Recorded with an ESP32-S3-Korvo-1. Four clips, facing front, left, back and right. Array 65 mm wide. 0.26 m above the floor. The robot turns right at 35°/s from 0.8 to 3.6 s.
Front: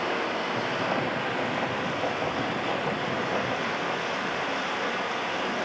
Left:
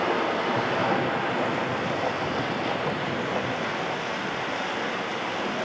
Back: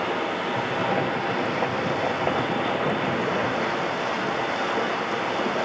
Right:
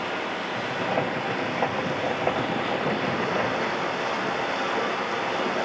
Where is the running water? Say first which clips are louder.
Left 5 dB, back 2 dB; 110° left, 3 m; by 5.7 s 155° right, 3 m.